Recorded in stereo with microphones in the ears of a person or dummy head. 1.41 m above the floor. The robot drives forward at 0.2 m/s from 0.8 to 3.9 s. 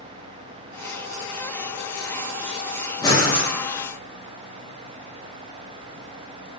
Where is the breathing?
15° left (ahead or behind), 0.7 m.